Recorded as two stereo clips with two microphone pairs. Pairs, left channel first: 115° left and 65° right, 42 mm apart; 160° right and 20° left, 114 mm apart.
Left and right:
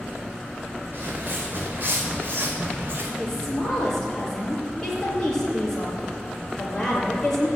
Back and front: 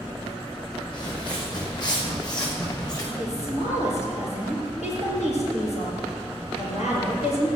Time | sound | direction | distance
0.9 | footsteps | 110° right | 4.5 m
3.2 | a woman speaking | 165° right | 5 m